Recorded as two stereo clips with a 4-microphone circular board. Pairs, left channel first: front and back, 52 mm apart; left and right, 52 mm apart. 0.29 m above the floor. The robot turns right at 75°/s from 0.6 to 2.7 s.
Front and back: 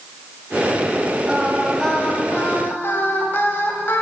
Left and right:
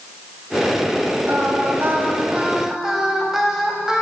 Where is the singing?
115° right, 1.0 m; by 4.0 s 10° right, 1.0 m.